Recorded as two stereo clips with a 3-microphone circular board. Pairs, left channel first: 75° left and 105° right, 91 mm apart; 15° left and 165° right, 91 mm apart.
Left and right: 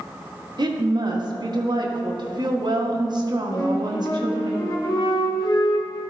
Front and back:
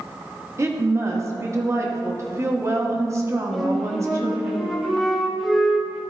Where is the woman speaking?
120° right, 1.2 m.